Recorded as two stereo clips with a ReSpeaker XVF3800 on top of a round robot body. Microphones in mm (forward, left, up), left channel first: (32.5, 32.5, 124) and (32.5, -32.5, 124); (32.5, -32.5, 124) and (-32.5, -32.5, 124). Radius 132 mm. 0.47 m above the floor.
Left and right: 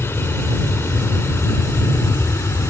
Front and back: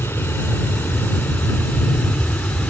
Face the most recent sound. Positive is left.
turn(degrees=65)